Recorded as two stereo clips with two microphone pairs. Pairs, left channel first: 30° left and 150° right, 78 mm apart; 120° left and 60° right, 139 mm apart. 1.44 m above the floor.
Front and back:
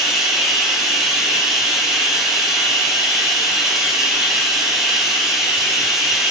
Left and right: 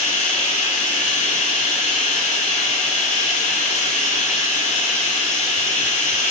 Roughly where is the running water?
Behind left.